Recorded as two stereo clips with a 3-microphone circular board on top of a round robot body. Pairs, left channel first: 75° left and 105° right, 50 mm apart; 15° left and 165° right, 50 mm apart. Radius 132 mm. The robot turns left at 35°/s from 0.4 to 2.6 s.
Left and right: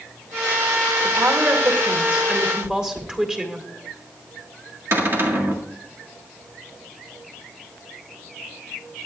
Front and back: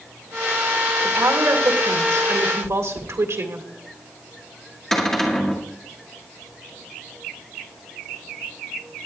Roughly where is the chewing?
Behind right.